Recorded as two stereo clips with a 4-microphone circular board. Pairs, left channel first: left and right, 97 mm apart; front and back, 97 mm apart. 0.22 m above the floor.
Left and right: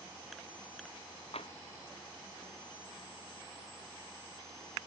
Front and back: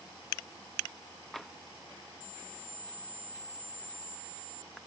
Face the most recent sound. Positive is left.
turn(degrees=85)